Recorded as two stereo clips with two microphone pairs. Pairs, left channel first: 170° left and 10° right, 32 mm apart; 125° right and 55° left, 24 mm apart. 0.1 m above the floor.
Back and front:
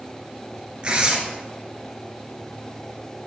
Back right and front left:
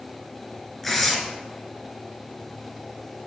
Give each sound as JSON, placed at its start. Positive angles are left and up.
{"t": 0.8, "sound": "tearing paper", "azimuth_deg": -45, "distance_m": 1.2}